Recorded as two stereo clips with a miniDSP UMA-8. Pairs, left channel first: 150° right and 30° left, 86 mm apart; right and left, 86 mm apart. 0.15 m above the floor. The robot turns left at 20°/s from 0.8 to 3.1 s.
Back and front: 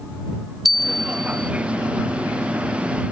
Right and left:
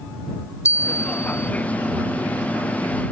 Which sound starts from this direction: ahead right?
A bell, at 0.7 s.